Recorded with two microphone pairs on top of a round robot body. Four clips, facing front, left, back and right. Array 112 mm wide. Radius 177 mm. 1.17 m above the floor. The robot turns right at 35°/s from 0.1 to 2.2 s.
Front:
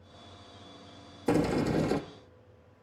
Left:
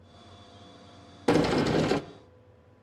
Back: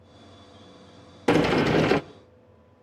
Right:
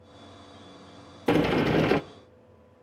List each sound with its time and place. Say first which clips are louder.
1.3 s a sliding door: right 1 dB, back 7 dB; 165° left, 0.6 m; by 2.0 s 170° right, 0.6 m